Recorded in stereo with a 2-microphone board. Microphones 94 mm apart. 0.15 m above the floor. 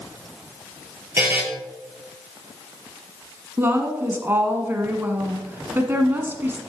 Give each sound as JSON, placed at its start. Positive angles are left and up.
{"t": 1.2, "sound": "a buzzer", "side_deg": -20, "distance_m": 2.0}
{"t": 3.6, "sound": "a woman speaking", "side_deg": -25, "distance_m": 1.2}